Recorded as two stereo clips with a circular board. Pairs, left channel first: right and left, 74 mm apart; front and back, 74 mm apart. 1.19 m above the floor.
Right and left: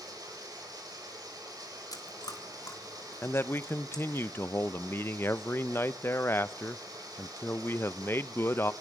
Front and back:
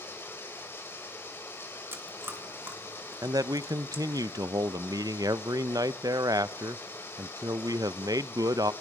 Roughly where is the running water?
Ahead left.